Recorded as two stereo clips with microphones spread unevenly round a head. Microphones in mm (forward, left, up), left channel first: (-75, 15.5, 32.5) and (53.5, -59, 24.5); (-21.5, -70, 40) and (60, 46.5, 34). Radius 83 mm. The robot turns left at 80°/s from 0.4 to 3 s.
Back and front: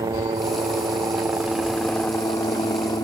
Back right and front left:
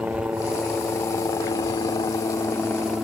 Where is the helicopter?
15° right; by 3.0 s 135° left.